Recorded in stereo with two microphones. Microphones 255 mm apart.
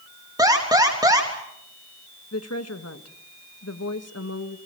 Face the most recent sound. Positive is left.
turn(degrees=85)